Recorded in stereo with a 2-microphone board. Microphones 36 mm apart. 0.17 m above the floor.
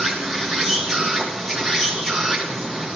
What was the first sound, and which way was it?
An insect, 10° left (ahead or behind).